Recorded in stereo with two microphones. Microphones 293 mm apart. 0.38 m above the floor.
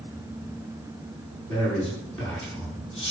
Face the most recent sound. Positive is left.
turn(degrees=45)  # may be behind; listen again after turning